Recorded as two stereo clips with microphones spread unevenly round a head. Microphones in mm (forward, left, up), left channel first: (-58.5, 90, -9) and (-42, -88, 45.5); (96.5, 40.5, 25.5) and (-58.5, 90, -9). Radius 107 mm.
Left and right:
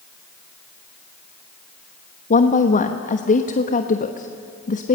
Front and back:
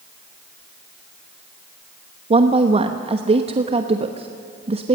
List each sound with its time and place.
2.3 s a woman speaking: 120° left, 1.1 m